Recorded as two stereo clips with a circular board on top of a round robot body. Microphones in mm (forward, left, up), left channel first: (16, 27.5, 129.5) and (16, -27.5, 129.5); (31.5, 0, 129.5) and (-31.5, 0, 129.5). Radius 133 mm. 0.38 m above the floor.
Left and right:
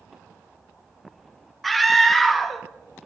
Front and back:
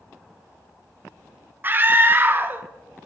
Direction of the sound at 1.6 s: 175° left.